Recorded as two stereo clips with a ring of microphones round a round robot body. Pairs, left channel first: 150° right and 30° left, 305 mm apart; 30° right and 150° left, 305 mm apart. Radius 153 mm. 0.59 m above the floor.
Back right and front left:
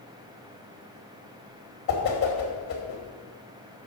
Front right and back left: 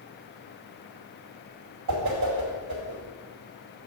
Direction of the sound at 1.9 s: 170° left.